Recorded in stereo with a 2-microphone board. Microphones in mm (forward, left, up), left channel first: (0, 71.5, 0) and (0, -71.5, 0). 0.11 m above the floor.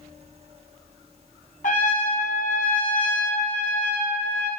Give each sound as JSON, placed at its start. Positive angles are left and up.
{"t": 1.6, "sound": "a trumpet", "side_deg": 65, "distance_m": 2.5}